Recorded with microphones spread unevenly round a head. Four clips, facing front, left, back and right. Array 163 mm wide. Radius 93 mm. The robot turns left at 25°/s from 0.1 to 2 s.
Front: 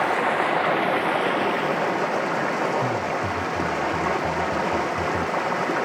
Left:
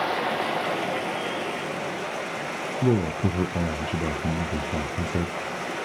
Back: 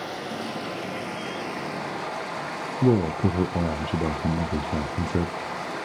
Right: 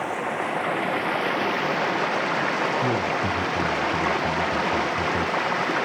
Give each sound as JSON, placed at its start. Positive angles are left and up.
{"t": 0.0, "sound": "running water", "azimuth_deg": 15, "distance_m": 1.0}
{"t": 2.8, "sound": "a man speaking", "azimuth_deg": 130, "distance_m": 0.7}